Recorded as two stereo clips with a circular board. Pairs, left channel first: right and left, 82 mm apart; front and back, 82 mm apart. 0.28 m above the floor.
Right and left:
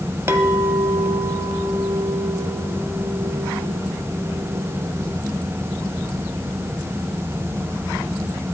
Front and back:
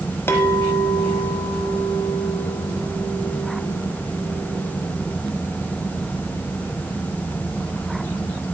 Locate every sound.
0.3 s a clink: 45° left, 1.2 m